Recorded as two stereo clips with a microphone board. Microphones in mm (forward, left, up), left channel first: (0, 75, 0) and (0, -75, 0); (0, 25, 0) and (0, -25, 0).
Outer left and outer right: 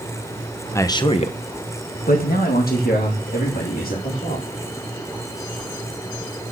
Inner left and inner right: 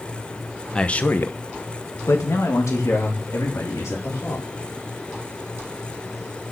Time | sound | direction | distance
0.8 | a man speaking | 20° left (ahead or behind) | 1.1 m